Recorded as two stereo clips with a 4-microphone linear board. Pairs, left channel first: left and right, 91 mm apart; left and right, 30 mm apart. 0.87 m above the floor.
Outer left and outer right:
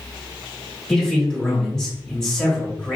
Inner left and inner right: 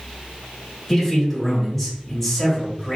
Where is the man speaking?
10° left (ahead or behind), 1.8 m.